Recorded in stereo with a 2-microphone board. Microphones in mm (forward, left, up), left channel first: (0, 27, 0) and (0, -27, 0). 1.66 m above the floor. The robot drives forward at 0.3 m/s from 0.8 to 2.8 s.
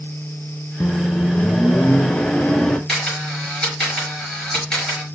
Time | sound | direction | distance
0.8 | a microwave | 40° left (ahead or behind) | 0.6 m
2.9 | a camera shutter | 15° left (ahead or behind) | 5.5 m